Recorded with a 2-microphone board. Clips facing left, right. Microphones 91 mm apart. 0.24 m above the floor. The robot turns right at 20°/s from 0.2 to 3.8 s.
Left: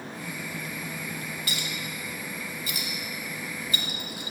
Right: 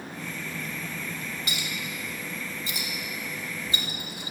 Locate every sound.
1.5 s a clink: 20° right (ahead or behind), 0.7 m; by 4.3 s 25° right (ahead or behind), 0.7 m